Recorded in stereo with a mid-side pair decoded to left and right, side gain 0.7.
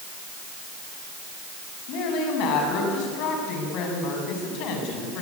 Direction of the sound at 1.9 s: 60° left.